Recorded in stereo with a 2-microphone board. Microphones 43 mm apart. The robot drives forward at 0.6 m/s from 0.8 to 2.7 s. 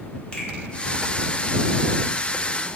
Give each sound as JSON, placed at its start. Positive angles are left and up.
{"t": 0.3, "sound": "a finger snap", "side_deg": 20, "distance_m": 0.6}